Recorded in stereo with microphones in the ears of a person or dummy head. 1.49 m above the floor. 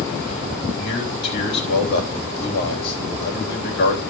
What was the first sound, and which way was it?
A man speaking, 55° left (ahead or behind).